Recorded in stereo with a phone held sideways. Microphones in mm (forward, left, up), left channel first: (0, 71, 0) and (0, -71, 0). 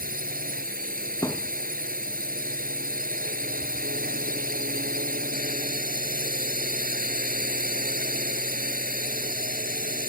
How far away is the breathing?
No breathing in this recording.